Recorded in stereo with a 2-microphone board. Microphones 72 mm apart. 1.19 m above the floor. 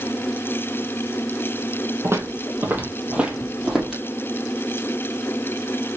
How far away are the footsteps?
About 1.5 m.